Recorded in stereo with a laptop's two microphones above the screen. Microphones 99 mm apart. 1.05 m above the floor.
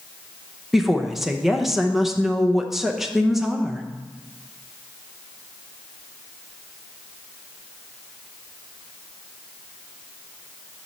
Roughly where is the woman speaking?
Centre.